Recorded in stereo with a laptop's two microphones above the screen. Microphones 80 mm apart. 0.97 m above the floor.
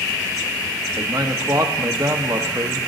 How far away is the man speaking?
About 1.0 m.